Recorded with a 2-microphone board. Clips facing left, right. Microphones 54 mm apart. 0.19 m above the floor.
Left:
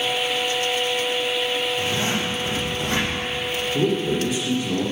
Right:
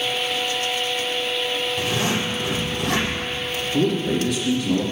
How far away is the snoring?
No snoring in this recording.